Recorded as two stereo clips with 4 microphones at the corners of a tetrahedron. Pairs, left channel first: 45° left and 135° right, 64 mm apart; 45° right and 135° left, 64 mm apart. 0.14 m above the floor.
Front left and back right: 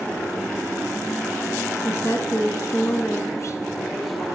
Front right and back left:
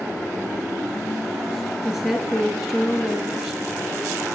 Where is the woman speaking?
50° left, 1.7 m.